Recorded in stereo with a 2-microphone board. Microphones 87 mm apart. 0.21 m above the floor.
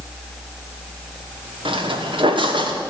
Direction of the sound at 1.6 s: 85° right.